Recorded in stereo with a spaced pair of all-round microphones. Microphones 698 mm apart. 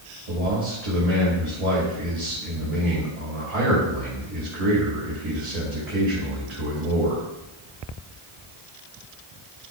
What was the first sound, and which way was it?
A man speaking, 55° right (ahead or behind).